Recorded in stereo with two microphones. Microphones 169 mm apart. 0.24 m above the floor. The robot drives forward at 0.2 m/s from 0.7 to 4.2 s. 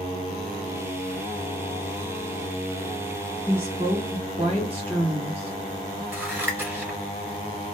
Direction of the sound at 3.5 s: 40° right (ahead or behind).